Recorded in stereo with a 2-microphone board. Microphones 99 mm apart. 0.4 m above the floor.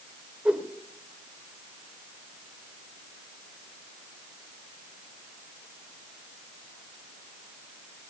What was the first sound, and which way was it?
A whoosh, 10° right (ahead or behind).